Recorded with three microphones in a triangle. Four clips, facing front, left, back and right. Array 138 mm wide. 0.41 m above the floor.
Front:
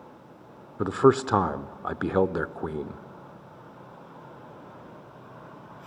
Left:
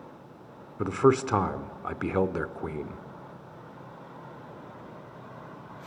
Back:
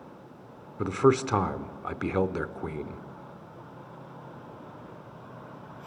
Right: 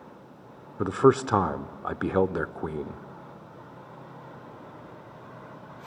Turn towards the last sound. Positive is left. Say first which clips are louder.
# right 2 dB, front 3 dB
turn(degrees=-35)